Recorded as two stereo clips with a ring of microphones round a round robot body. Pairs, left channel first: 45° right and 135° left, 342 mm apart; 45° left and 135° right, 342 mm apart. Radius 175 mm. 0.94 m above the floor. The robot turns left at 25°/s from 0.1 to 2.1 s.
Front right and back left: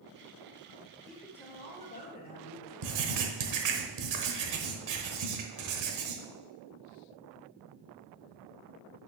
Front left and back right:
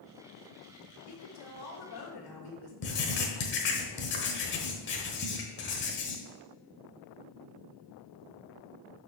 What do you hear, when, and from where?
1.1 s a woman speaking: 45° left, 2 m; by 2.7 s 20° left, 2 m
2.8 s writing: 100° left, 1.1 m